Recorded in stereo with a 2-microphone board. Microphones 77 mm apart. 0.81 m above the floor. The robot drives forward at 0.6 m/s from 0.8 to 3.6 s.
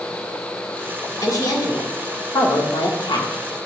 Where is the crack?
No crack in this recording.